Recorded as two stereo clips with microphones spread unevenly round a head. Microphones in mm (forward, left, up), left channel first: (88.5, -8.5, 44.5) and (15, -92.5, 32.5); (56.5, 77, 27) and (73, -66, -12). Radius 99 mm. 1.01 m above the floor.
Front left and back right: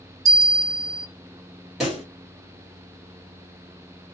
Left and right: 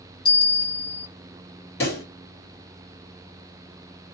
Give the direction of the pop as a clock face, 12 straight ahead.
7 o'clock.